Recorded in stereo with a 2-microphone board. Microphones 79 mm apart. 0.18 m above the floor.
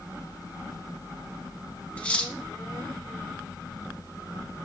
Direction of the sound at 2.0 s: 15° left (ahead or behind).